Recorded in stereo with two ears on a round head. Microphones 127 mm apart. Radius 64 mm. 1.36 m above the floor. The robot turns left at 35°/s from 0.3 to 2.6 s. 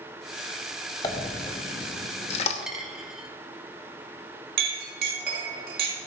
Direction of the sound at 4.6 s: 75° right (ahead or behind).